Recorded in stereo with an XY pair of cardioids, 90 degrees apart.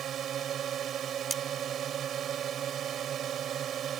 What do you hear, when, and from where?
0.0 s a drone: 70° right
1.3 s cutlery clinking: 30° right